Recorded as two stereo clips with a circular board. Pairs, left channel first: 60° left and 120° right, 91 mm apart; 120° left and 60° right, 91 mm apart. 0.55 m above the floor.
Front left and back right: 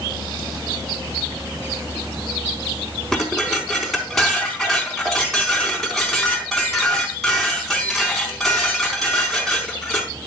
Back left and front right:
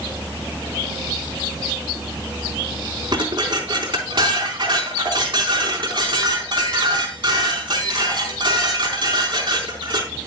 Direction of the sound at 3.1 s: 25° right.